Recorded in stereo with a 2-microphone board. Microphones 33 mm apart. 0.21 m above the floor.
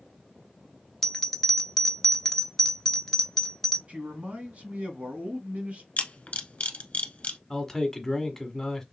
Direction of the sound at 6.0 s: 40° left (ahead or behind).